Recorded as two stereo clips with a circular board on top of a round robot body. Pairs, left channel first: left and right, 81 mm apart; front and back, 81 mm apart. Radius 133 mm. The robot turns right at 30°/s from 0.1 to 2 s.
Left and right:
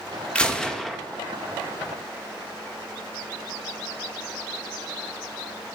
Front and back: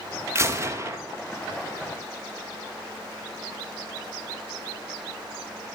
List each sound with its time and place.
0.3 s a gunshot: 160° left, 1.7 m; by 1.0 s 175° left, 1.7 m